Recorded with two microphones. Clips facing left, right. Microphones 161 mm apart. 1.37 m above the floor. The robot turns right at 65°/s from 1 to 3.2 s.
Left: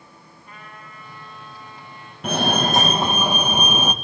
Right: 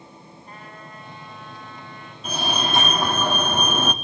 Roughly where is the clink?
No clink in this recording.